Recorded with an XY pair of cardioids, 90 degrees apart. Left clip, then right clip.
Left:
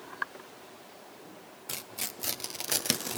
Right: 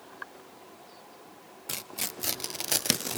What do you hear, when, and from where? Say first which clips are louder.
1.7 s tearing paper: right 3 dB; 25° right, 0.6 m